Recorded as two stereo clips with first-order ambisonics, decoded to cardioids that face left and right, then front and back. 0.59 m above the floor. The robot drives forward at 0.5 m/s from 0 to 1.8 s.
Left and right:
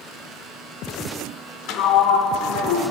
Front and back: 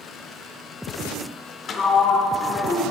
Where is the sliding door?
60° left, 0.6 m; by 2.9 s 65° left, 0.5 m.